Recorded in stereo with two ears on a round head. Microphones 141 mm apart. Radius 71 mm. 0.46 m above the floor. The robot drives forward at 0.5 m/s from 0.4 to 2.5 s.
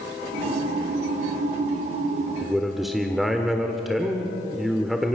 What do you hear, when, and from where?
2.4 s a man speaking: centre (ahead or behind), 1.2 m